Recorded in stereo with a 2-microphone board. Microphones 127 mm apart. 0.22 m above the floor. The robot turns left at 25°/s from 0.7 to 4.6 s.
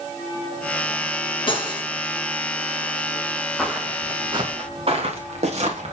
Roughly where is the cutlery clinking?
Left.